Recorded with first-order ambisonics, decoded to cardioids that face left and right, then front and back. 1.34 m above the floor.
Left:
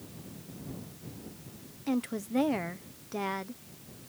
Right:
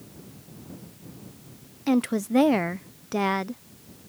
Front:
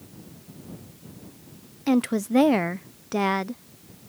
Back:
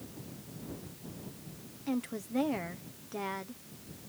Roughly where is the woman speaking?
Ahead right.